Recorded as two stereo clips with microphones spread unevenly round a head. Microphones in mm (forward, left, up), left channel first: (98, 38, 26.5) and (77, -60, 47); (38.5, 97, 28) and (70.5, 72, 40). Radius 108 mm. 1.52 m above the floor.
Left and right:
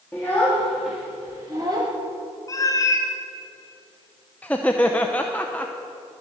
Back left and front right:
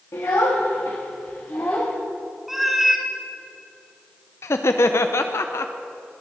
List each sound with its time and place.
0.1 s a child speaking: 165° left, 1.4 m; by 1.9 s 140° right, 1.1 m
2.5 s a cat meowing: 25° left, 1.8 m
4.4 s laughter: 170° left, 0.5 m